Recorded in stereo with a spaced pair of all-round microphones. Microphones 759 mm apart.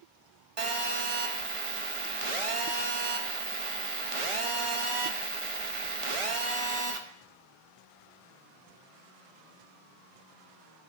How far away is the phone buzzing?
About 0.8 m.